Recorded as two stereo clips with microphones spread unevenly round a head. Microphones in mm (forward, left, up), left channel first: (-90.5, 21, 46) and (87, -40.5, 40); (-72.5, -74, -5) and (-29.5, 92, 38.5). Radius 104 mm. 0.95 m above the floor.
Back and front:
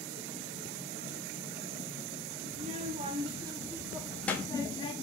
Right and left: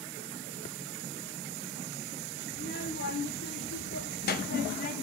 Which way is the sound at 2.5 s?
65° right.